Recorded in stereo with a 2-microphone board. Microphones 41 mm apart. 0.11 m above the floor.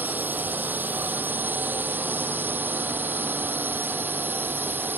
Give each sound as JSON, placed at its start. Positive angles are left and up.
{"t": 0.0, "sound": "a drone", "side_deg": -50}